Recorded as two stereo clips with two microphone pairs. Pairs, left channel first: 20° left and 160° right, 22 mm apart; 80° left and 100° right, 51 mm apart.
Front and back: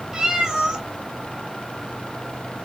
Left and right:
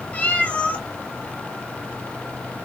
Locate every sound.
0.1 s a cat meowing: 145° left, 1.2 m